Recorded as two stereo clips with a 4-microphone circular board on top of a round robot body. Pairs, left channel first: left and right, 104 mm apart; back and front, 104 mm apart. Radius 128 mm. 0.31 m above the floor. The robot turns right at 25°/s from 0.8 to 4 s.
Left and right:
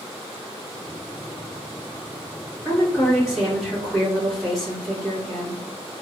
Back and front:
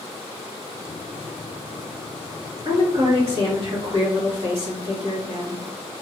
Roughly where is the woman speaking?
Ahead right.